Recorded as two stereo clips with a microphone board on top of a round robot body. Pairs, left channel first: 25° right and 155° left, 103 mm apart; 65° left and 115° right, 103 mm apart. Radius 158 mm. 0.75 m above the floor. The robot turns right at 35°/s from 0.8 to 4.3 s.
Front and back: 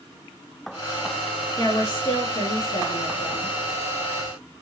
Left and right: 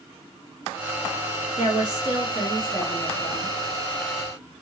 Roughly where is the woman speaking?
Right.